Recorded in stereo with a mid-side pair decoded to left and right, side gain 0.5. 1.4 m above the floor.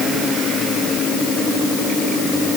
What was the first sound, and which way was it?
Only background noise.